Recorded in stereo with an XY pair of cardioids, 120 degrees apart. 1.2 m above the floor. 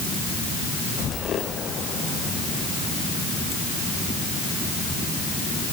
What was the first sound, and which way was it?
Only background noise.